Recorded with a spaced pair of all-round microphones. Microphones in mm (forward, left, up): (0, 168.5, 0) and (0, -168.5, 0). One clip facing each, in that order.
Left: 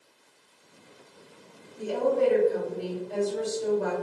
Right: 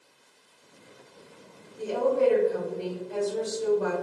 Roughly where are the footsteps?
I don't hear footsteps.